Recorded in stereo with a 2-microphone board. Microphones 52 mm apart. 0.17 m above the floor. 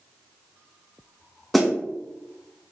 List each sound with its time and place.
1.5 s a snare drum: centre (ahead or behind), 0.5 m